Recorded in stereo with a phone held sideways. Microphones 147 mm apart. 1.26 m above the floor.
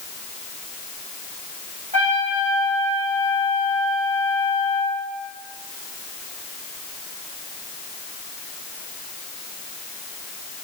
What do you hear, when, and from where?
1.9 s a trumpet: 55° right (ahead or behind), 3 m